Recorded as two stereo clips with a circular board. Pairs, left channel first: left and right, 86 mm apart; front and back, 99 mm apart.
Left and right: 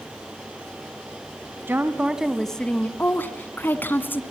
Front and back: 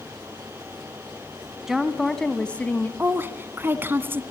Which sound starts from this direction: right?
A woman speaking, at 1.7 s.